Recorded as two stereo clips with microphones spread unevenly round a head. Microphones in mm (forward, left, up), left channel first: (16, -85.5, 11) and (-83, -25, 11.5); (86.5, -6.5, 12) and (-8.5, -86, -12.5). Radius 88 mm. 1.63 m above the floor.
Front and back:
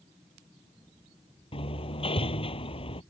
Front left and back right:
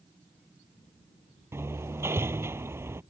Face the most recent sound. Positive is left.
turn(degrees=-70)